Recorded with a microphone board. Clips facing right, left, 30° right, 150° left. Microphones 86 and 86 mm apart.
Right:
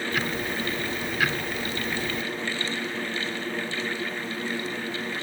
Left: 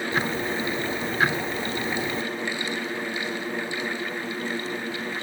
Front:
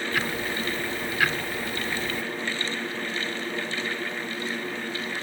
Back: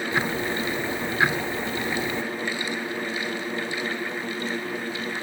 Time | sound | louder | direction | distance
0.1 | ticking | left 4 dB, back 4 dB | 105° left | 0.9 m